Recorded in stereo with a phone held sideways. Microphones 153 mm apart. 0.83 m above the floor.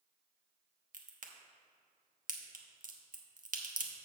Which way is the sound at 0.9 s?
65° right (ahead or behind).